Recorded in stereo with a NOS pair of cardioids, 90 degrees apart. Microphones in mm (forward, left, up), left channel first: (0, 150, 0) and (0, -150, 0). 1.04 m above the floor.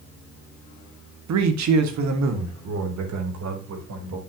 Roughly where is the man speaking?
Ahead right.